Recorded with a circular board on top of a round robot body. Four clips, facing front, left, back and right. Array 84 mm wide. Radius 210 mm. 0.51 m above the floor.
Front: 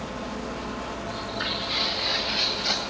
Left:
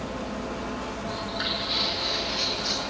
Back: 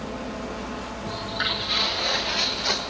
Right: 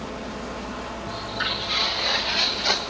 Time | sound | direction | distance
1.1 | footsteps | 175° left | 1.9 m